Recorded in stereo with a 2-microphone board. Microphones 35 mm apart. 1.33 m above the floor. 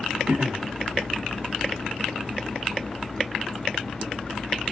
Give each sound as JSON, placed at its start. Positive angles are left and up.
{"t": 0.3, "sound": "throat clearing", "side_deg": -45, "distance_m": 0.7}